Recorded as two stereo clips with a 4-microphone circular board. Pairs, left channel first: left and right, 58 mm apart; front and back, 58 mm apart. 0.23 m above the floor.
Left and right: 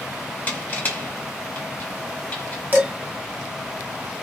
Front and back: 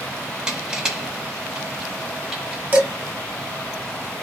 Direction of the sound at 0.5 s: 115° left.